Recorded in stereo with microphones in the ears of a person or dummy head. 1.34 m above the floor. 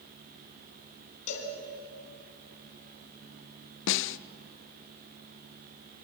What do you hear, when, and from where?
1.3 s a cowbell: 45° left (ahead or behind), 3.5 m
3.9 s a snare drum: 65° left (ahead or behind), 0.5 m